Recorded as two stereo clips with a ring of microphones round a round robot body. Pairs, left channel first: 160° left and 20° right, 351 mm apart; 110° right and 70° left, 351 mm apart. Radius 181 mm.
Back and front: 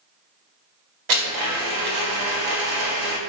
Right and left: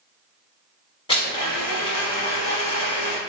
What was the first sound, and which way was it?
A blender, 35° right.